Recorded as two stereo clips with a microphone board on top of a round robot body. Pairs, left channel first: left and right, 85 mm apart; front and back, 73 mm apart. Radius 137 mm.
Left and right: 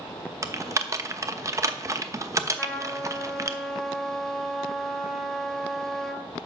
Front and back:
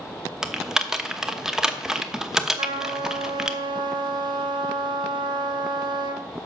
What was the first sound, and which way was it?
Typing on a keyboard, 100° right.